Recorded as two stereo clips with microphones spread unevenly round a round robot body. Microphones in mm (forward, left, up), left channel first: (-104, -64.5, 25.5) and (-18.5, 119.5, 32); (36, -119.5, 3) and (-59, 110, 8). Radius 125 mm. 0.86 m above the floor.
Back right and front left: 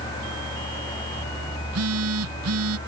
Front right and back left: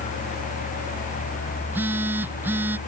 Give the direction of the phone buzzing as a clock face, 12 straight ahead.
11 o'clock.